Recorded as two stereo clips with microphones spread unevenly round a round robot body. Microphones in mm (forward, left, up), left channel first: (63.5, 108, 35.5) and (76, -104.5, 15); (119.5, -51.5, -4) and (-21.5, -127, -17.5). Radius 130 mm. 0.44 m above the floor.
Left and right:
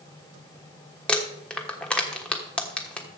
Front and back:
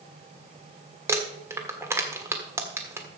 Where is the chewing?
No chewing in this recording.